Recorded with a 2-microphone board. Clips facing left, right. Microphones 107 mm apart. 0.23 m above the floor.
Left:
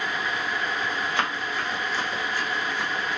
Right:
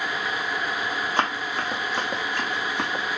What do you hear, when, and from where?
1.2 s running footsteps: 30° right (ahead or behind), 1.4 m; by 3.0 s 85° right, 1.4 m